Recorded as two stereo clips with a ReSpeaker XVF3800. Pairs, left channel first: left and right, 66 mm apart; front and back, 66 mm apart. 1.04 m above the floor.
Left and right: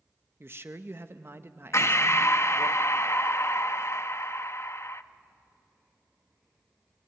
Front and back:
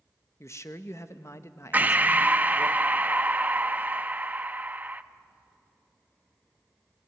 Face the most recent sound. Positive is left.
turn(degrees=120)